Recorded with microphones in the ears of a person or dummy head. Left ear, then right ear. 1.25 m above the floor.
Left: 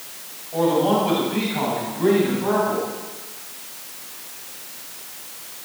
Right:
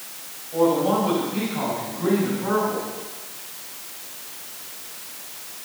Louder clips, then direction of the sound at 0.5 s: Left 1 dB; 5° left (ahead or behind).